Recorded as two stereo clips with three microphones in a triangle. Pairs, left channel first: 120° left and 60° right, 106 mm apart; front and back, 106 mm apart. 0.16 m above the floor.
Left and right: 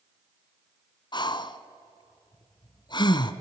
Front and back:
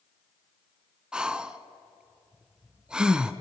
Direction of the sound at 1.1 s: 100° left.